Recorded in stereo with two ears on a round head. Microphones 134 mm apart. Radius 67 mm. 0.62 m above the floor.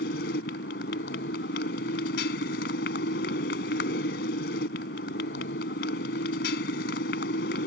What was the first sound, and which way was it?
A motorcycle, 75° left (ahead or behind).